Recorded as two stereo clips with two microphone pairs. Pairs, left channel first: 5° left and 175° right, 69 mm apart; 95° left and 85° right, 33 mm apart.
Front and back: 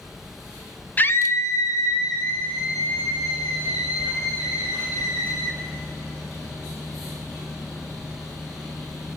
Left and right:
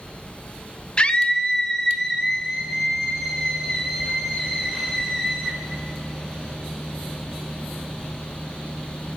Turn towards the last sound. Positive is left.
turn(degrees=15)